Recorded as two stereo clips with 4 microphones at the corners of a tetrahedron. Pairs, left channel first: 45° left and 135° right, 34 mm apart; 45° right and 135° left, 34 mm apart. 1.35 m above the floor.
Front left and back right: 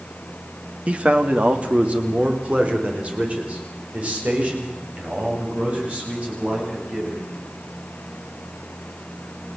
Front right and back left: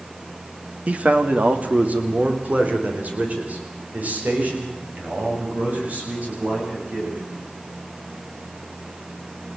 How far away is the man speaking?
About 1.7 m.